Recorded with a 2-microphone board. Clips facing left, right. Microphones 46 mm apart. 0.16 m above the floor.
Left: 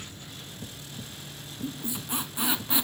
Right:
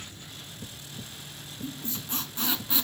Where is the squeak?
15° left (ahead or behind), 0.7 m.